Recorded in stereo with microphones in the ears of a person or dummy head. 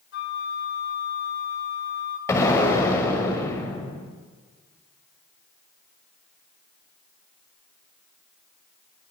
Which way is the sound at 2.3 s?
15° left (ahead or behind).